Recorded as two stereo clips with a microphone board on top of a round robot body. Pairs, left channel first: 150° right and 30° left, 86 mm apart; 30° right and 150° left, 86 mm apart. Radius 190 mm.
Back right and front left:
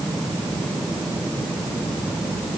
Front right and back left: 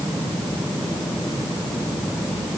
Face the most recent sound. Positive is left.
No sound to turn to.